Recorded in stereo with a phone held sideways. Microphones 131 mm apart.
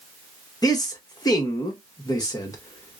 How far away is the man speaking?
About 1.0 m.